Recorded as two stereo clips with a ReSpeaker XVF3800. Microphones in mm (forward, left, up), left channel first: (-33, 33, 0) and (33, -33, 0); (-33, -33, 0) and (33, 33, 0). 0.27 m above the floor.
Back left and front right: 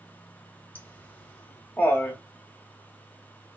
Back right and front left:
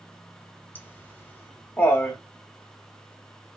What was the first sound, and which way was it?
Laughter, 175° right.